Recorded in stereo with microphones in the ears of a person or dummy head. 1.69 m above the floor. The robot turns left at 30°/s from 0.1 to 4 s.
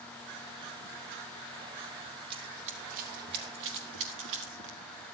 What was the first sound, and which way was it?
Running footsteps, 25° right (ahead or behind).